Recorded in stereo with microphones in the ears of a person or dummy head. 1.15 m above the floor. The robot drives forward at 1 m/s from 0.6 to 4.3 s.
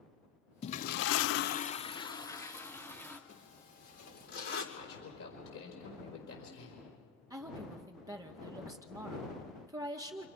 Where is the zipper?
70° left (ahead or behind), 4 m; by 4.6 s 60° left (ahead or behind), 4.5 m.